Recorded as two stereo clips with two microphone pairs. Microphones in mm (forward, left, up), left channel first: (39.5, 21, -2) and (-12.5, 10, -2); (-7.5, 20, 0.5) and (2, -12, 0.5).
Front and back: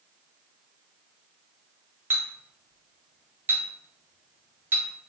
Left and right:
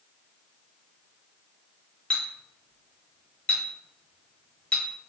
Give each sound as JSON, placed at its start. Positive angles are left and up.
{"t": 2.1, "sound": "a clink", "azimuth_deg": 155, "distance_m": 0.7}